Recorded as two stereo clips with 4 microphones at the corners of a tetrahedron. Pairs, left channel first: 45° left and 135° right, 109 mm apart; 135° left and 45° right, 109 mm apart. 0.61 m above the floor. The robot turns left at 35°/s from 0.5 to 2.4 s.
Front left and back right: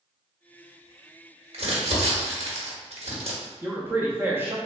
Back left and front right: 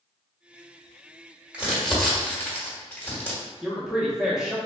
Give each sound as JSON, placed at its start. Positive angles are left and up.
{"t": 1.5, "sound": "crumpling", "azimuth_deg": -120, "distance_m": 1.1}
{"t": 3.6, "sound": "a man speaking", "azimuth_deg": -115, "distance_m": 0.6}